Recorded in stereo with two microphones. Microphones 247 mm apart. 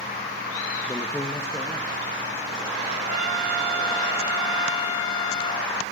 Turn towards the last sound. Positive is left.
turn(degrees=70)  # may be behind; listen again after turning